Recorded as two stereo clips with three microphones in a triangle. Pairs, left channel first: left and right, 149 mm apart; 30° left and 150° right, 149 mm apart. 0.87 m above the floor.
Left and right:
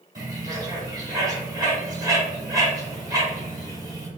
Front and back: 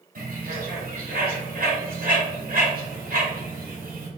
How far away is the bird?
About 1.7 m.